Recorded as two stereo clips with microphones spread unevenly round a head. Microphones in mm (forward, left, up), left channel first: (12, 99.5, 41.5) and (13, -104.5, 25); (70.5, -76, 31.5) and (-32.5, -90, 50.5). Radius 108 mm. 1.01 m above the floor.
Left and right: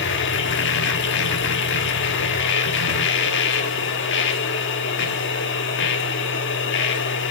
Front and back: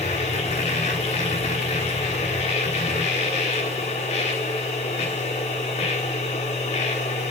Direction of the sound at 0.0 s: 55° left.